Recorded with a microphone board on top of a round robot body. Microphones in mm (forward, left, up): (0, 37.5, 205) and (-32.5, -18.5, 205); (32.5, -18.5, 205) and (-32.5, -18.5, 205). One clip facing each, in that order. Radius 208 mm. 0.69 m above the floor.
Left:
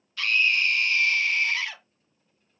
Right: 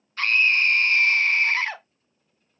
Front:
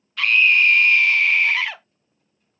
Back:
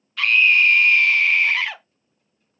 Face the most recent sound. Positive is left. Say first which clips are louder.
# right 3 dB, even
turn(degrees=-90)